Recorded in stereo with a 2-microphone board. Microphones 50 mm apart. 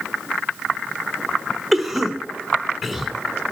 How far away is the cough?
About 1.3 m.